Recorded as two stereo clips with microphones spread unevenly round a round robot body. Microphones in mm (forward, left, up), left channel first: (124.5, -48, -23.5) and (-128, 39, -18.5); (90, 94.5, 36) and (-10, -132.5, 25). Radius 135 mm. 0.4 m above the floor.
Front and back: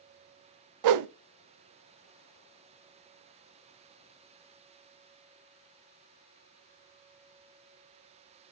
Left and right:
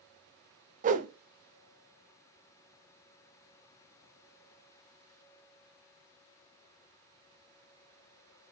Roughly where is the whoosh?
Behind.